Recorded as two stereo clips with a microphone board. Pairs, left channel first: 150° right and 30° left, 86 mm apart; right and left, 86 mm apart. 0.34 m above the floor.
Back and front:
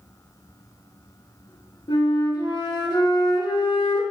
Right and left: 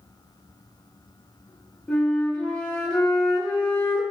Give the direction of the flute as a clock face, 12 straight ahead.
6 o'clock.